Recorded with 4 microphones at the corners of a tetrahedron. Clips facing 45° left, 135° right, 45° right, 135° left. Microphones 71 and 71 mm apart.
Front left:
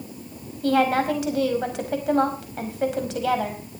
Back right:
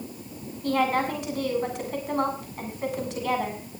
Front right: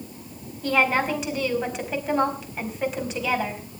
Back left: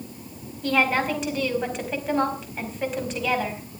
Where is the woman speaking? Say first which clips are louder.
Front left 4 dB, even; 45° left, 4.5 m.